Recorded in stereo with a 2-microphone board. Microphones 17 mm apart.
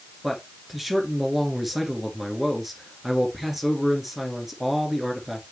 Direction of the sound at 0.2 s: 15° right (ahead or behind).